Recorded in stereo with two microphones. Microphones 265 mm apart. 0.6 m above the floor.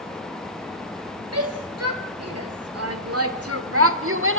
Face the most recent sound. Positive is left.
turn(degrees=-50)  # may be behind; listen again after turning